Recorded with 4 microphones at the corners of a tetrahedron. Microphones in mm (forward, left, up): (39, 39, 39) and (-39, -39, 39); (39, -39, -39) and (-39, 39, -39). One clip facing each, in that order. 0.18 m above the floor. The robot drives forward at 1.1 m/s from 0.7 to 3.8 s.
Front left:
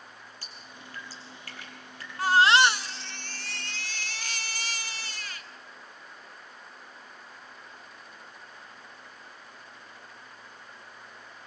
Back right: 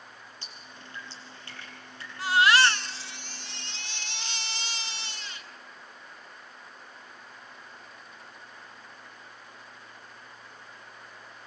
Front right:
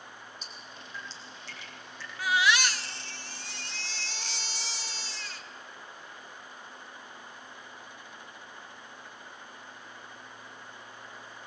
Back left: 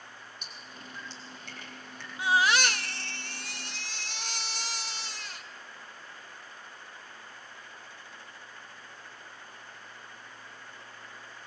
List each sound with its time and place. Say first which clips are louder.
0.4 s dripping: even, even; 160° left, 5.5 m; by 2.1 s 165° left, 6.5 m
2.2 s a baby crying: front left 2 dB, back left 1 dB; 70° left, 0.7 m; by 5.5 s 160° left, 1.7 m